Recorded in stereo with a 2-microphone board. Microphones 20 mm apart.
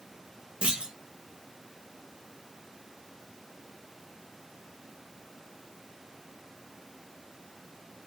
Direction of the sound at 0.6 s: 65° right (ahead or behind).